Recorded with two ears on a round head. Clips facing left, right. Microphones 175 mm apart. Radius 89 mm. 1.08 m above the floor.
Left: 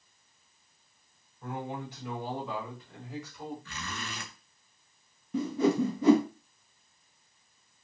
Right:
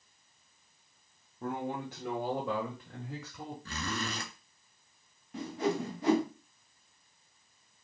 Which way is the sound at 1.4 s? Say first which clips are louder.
Right 2 dB; 45° right (ahead or behind).